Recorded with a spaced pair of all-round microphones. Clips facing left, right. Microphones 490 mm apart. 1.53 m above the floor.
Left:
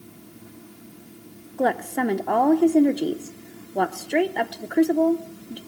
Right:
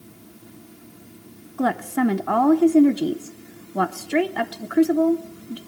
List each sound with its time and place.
1.6 s a woman speaking: 25° right (ahead or behind), 0.7 m